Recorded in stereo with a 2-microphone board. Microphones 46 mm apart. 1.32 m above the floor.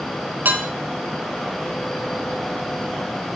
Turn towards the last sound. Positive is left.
turn(degrees=-45)  # may be behind; listen again after turning